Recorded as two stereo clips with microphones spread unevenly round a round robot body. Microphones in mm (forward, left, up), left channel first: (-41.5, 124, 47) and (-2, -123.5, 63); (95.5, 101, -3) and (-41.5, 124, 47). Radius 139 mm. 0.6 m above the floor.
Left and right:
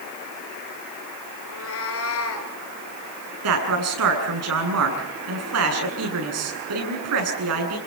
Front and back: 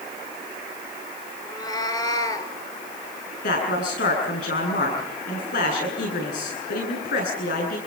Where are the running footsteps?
I don't hear running footsteps.